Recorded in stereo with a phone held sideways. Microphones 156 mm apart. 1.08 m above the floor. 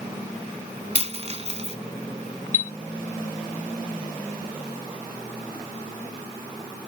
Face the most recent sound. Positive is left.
turn(degrees=-65)  # may be behind; listen again after turning